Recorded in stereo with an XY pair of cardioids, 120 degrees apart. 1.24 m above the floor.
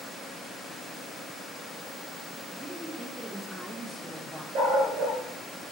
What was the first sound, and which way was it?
A woman speaking, 10° right.